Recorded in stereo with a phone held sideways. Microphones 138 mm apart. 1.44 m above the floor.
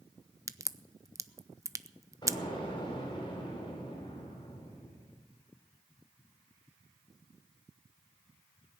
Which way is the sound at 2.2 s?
30° left (ahead or behind).